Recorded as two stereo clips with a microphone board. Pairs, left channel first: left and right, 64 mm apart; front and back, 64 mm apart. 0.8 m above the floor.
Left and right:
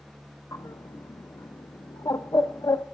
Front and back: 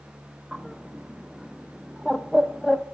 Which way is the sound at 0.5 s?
90° left.